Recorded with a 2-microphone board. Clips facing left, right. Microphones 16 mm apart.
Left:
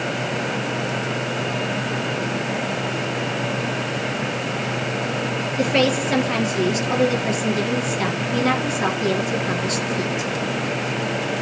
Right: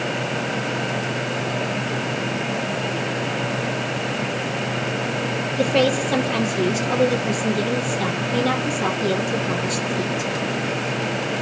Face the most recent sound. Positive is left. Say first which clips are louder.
# even
turn(degrees=35)  # may be behind; listen again after turning